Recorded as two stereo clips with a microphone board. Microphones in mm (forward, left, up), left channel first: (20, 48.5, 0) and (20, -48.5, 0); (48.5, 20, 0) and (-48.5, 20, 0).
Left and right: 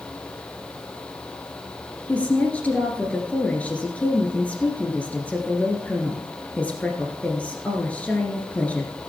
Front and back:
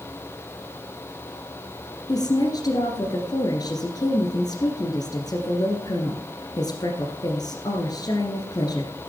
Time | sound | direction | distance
2.1 | a woman speaking | 20° left | 1.7 m